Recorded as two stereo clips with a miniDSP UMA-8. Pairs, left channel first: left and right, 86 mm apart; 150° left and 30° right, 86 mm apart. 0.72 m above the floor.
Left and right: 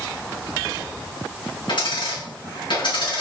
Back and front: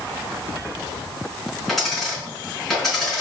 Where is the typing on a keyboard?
No typing on a keyboard in this recording.